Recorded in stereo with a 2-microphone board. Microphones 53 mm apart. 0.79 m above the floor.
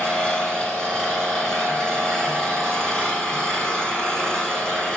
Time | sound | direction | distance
0.0 | an engine running | 15° left (ahead or behind) | 4.5 m